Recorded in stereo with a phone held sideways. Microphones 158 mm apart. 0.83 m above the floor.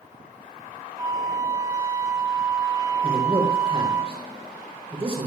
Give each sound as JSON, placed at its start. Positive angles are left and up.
{"t": 1.0, "sound": "a flute", "side_deg": -20, "distance_m": 3.0}
{"t": 3.0, "sound": "a man speaking", "side_deg": -40, "distance_m": 4.5}